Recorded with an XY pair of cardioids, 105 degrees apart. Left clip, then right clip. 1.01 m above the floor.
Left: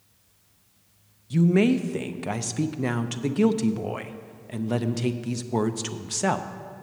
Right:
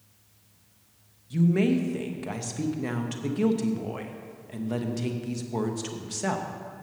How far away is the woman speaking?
About 0.7 m.